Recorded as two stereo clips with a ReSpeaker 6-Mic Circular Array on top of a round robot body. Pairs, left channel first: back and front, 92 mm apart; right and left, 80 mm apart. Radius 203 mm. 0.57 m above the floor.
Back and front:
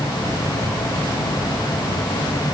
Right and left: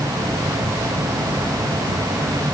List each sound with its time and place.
Only background noise.